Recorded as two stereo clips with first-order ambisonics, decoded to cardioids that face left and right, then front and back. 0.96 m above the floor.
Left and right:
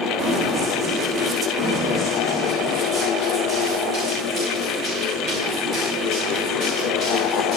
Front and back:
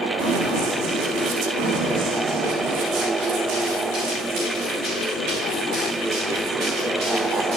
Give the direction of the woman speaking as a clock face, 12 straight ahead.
No woman speaking in this recording.